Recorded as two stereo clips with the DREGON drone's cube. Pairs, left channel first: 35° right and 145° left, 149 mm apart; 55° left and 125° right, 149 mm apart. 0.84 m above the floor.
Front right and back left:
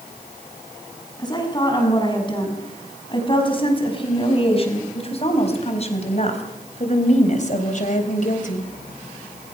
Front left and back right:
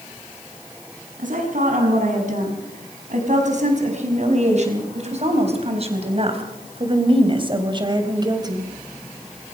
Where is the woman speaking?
95° right, 6.5 m; by 8.7 s 60° right, 3.5 m.